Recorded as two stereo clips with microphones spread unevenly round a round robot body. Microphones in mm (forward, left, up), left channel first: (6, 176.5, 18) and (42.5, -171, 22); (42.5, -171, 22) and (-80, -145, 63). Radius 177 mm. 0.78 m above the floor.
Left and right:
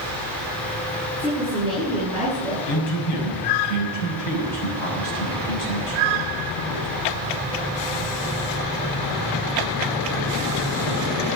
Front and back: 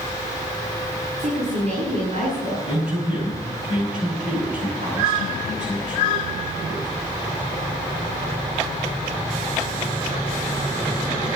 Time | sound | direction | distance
1.2 | a woman speaking | 175° left | 7.5 m
2.7 | a man speaking | 105° left | 6 m